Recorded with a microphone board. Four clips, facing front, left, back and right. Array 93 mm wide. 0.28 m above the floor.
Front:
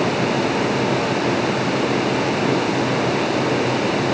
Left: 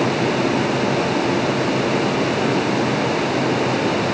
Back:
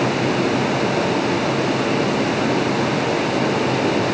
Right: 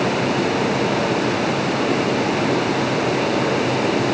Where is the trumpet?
No trumpet in this recording.